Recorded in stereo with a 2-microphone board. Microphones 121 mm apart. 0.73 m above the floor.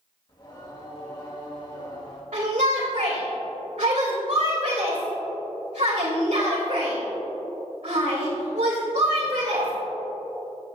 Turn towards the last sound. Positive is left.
turn(degrees=-75)  # may be behind; listen again after turning